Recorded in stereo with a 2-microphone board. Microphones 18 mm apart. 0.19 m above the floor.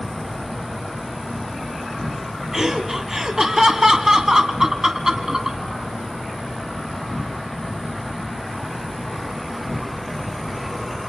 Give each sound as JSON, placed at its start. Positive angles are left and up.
{"t": 0.0, "sound": "an insect", "side_deg": 10, "distance_m": 5.0}
{"t": 2.5, "sound": "laughter", "side_deg": -30, "distance_m": 1.4}